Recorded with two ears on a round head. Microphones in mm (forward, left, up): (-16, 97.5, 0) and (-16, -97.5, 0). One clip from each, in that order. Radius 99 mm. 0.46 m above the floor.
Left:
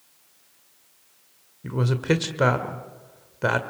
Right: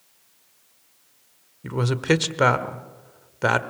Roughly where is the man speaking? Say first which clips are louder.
Right 2 dB; right.